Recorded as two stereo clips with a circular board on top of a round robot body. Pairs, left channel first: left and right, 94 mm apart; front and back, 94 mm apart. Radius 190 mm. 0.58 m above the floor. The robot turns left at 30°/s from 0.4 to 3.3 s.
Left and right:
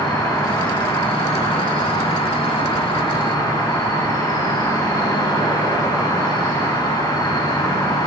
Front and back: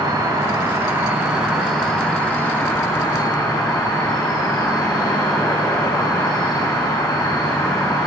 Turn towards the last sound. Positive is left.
turn(degrees=45)